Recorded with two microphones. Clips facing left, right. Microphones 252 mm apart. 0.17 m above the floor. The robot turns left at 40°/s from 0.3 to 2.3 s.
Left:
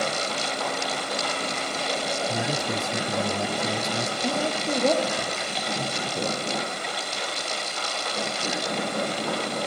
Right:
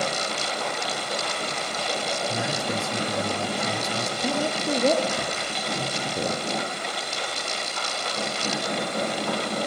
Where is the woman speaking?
5° right (ahead or behind), 3.5 m.